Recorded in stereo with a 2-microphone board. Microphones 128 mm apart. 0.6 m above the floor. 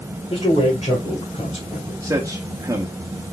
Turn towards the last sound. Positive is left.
turn(degrees=-25)  # may be behind; listen again after turning